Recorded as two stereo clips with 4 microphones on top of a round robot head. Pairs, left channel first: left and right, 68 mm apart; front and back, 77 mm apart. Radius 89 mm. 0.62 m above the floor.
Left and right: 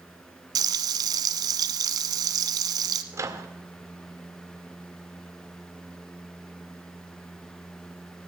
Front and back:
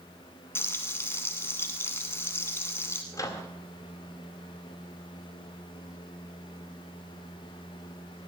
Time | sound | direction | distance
0.6 | frying | 70° right | 0.9 m
3.1 | a microwave | 50° right | 2 m